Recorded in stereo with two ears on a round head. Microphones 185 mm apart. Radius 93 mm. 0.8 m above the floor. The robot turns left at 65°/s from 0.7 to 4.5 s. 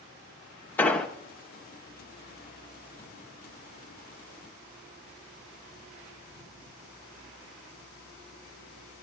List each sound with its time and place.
0.8 s an explosion: 10° left (ahead or behind), 0.7 m; by 1.1 s centre (ahead or behind), 0.7 m